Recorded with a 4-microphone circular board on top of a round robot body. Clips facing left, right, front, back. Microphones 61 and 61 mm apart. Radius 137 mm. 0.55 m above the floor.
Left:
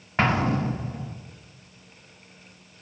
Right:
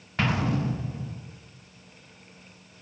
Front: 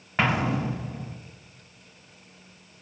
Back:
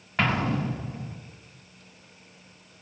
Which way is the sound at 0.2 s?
75° left.